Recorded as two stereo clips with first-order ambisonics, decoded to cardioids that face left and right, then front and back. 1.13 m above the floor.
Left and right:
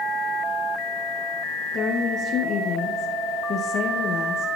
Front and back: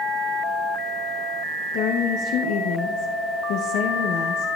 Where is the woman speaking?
30° left, 0.6 m.